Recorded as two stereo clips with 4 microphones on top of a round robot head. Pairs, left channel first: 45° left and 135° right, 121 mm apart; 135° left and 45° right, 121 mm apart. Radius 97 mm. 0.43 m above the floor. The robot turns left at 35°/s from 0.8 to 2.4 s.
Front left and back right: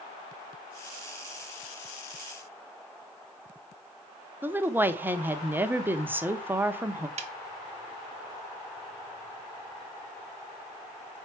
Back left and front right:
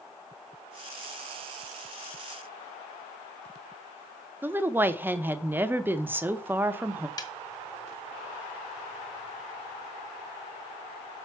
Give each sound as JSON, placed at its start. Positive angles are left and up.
{"t": 4.4, "sound": "a woman speaking", "azimuth_deg": -90, "distance_m": 0.7}
{"t": 7.2, "sound": "a snare drum", "azimuth_deg": -165, "distance_m": 1.0}